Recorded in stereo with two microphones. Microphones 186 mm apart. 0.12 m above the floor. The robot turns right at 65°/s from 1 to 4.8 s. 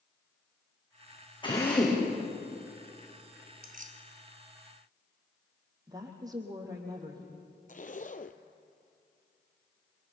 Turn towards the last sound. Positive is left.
turn(degrees=45)  # may be behind; listen again after turning